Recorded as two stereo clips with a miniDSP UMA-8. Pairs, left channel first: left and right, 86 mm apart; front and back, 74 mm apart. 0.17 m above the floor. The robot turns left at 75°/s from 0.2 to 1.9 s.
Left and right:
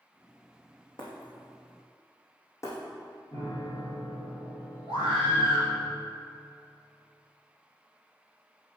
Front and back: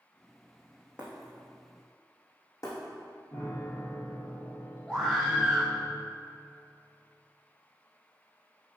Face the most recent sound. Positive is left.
turn(degrees=70)